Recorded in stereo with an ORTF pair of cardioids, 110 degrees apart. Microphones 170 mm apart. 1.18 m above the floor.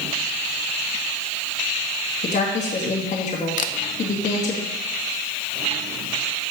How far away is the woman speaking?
About 2 m.